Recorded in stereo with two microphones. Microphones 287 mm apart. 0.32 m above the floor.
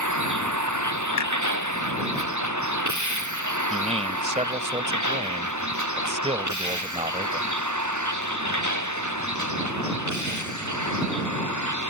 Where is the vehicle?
80° right.